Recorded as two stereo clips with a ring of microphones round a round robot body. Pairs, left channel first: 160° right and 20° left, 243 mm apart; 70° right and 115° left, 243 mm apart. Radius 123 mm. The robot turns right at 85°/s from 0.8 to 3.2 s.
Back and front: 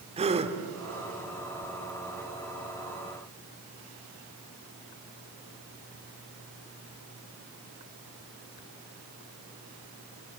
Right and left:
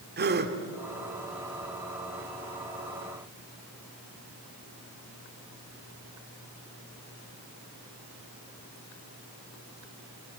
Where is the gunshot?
No gunshot in this recording.